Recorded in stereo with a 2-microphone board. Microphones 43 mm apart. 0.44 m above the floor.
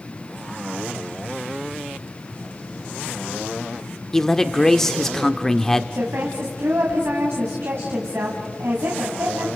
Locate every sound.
4.1 s a man speaking: 10° left (ahead or behind), 0.8 m
5.9 s a woman speaking: 75° right (ahead or behind), 3 m